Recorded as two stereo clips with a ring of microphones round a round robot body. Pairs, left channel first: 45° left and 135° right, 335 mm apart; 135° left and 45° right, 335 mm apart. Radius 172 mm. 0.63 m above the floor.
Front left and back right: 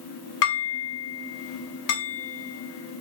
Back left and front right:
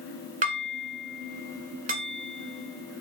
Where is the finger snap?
No finger snap in this recording.